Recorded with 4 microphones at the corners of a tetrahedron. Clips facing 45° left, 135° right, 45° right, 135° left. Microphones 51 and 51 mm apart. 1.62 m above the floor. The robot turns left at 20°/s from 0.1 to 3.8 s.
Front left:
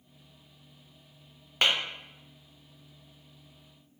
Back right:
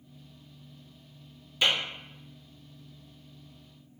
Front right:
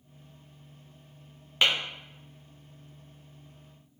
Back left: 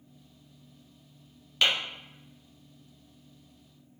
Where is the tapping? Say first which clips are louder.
Front left 1 dB, front right 1 dB; 25° left, 0.7 m.